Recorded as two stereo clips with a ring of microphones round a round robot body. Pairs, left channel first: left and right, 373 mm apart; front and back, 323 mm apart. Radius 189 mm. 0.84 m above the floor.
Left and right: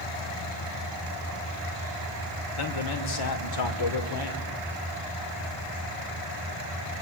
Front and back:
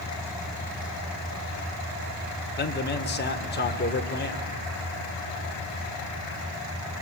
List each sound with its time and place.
2.6 s a man speaking: 60° left, 2.5 m